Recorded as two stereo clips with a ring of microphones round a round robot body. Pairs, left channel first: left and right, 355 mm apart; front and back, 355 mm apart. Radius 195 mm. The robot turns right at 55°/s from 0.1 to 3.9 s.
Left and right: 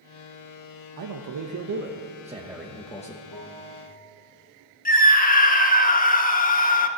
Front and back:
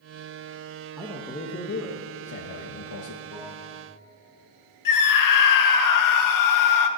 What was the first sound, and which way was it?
A man speaking, 95° right.